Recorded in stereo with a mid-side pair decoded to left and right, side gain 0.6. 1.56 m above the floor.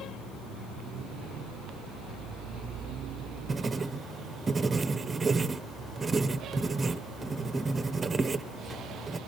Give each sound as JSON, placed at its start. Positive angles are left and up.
{"t": 3.5, "sound": "writing", "azimuth_deg": -25, "distance_m": 0.8}